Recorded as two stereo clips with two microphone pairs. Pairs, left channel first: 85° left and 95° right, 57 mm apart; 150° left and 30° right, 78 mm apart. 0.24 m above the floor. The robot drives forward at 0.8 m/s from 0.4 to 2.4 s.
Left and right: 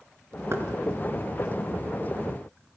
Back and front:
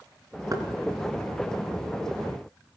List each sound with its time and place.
0.5 s knocking: 60° right, 3 m; by 0.7 s 65° right, 3 m